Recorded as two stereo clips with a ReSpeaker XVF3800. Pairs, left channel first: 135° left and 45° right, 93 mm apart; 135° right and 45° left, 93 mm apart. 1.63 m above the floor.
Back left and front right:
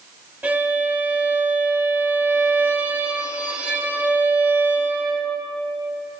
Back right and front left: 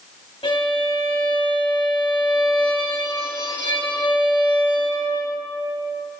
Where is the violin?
120° right, 2.5 m.